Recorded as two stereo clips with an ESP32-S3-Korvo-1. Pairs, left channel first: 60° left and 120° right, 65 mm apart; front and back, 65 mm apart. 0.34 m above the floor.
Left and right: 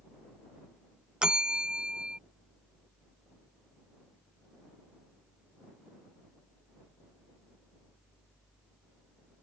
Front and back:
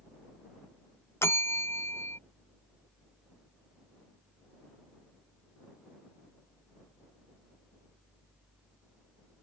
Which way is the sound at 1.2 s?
45° right.